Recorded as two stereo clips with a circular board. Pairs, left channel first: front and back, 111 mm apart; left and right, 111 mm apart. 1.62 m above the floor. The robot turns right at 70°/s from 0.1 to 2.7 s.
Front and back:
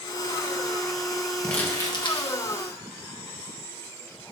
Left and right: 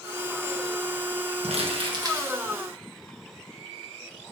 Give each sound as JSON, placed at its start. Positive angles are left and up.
{"t": 1.4, "sound": "crumpling", "azimuth_deg": -85, "distance_m": 1.4}